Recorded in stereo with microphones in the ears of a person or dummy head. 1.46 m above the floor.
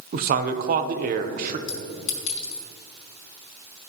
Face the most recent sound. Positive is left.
turn(degrees=75)  # may be behind; listen again after turning